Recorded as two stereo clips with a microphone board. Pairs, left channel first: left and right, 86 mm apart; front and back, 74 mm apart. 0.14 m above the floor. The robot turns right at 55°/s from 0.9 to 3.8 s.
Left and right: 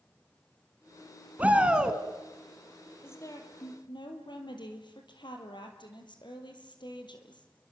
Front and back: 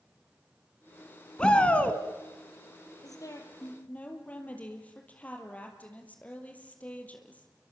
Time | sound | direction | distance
1.4 | a shout | 55° right | 1.5 m
3.0 | a woman speaking | 25° left | 3.5 m